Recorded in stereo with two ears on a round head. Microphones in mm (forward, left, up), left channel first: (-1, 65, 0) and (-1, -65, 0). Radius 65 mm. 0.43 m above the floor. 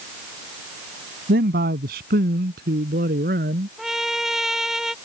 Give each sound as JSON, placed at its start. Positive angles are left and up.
{"t": 1.3, "sound": "a man speaking", "side_deg": -75}
{"t": 3.8, "sound": "a trumpet", "side_deg": 0}